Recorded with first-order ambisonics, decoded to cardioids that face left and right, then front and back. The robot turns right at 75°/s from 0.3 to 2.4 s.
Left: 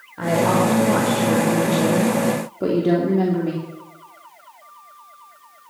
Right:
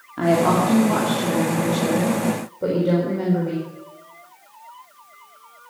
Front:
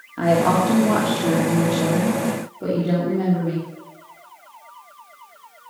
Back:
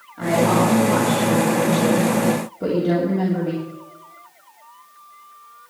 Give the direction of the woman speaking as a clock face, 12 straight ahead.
2 o'clock.